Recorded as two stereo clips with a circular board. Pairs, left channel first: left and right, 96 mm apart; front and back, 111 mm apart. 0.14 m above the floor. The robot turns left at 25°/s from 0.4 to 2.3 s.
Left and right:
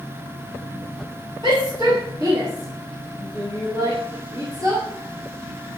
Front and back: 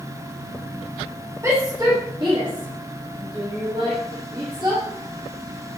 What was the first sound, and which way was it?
A shout, 120° right.